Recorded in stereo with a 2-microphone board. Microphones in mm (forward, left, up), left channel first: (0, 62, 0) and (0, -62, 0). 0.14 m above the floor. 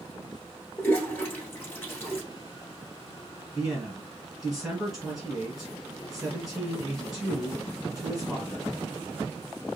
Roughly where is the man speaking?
Centre.